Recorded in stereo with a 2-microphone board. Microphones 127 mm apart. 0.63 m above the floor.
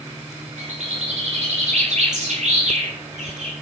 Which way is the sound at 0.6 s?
70° right (ahead or behind).